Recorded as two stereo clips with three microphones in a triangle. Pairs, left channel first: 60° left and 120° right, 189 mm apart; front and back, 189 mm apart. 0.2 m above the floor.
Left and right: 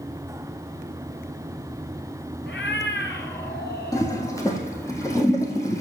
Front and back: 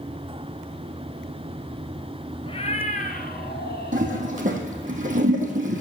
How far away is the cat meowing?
About 1.0 m.